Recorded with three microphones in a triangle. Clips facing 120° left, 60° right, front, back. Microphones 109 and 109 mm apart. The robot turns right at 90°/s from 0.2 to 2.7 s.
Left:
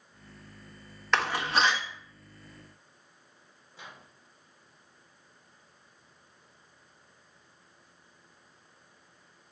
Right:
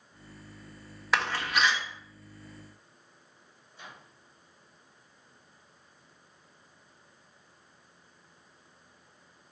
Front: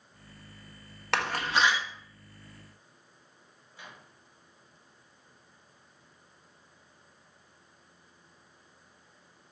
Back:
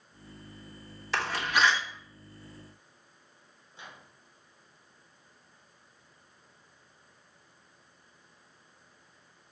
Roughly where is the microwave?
Left.